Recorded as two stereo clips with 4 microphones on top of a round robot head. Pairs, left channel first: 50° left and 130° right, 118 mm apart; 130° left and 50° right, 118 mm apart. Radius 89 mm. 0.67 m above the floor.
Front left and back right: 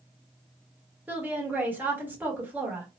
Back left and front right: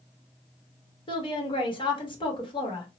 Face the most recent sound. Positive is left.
turn(degrees=160)